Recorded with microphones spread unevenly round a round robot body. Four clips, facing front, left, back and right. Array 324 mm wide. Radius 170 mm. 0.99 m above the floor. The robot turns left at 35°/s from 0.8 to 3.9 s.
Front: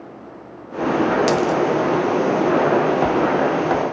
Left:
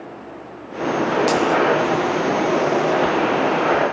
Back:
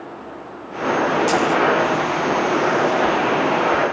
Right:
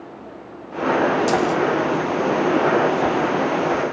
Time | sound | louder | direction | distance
1.3 | a dropped coin | left 1 dB, even | 35° right | 1.0 m